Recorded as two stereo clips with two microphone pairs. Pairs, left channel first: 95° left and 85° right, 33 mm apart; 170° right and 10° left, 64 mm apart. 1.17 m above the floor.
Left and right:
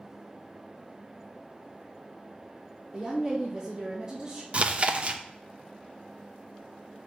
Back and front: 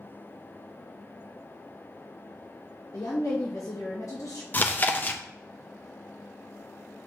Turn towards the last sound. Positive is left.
turn(degrees=-125)